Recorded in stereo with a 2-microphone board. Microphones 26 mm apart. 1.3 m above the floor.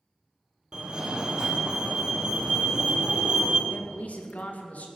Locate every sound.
0.7 s a fire alarm: 30° right (ahead or behind), 1.7 m
3.7 s a man speaking: 75° left (ahead or behind), 2.5 m